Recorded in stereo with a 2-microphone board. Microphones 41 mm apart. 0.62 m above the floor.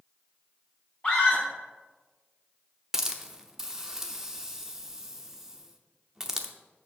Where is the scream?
20° left (ahead or behind), 4.5 m.